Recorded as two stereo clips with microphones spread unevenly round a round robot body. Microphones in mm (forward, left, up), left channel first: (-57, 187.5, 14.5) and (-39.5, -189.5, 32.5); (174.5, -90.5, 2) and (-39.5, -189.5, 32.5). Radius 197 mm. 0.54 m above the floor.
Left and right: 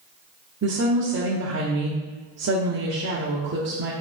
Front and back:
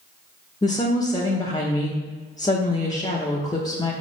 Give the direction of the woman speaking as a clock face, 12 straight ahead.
1 o'clock.